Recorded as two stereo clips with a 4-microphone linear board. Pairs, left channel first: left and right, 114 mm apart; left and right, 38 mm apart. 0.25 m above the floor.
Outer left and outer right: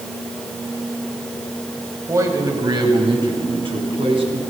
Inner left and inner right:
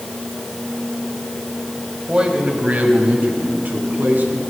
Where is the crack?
No crack in this recording.